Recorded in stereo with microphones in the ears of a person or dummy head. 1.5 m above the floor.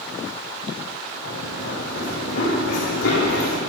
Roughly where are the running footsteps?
Left.